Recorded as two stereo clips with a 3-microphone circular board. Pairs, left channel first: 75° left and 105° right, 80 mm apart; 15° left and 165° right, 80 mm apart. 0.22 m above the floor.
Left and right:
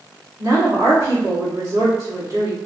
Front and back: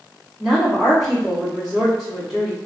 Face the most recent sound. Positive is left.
turn(degrees=-80)